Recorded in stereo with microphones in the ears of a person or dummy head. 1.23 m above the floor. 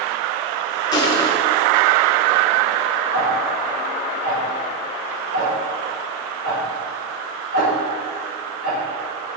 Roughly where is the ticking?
Right.